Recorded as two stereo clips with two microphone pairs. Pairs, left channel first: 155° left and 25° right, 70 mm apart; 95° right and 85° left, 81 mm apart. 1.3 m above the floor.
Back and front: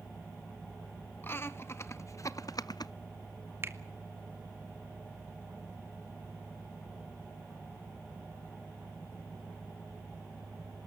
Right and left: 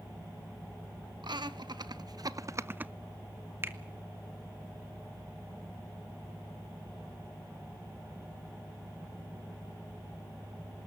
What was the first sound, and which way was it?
Laughter, 100° left.